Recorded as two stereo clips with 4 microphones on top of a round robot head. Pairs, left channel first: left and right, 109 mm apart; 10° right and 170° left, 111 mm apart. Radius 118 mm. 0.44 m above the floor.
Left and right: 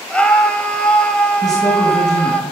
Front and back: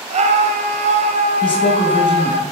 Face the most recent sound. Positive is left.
turn(degrees=30)